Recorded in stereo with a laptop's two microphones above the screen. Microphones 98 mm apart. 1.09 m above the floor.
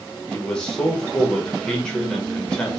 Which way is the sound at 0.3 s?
10° left (ahead or behind).